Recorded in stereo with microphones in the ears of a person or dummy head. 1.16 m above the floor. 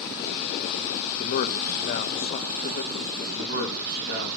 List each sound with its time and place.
1.2 s a man speaking: 55° left (ahead or behind), 1.1 m
3.4 s a man speaking: 60° right (ahead or behind), 7.5 m